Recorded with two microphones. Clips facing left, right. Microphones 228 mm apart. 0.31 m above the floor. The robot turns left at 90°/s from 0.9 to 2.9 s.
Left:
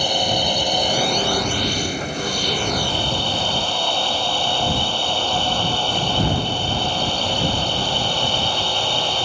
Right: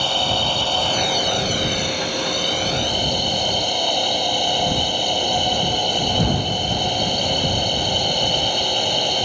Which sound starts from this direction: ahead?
A drone, at 0.0 s.